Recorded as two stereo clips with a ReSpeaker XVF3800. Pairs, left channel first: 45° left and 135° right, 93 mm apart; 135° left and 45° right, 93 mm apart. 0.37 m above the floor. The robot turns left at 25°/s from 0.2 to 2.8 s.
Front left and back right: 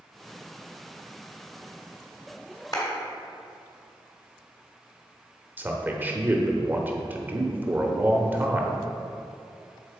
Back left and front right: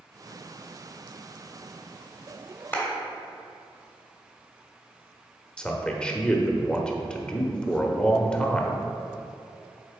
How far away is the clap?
About 1.8 m.